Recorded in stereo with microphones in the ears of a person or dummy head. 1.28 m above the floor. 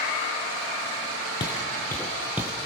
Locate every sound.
1.4 s footsteps: 25° left (ahead or behind), 1.6 m; by 2.5 s 10° right (ahead or behind), 1.5 m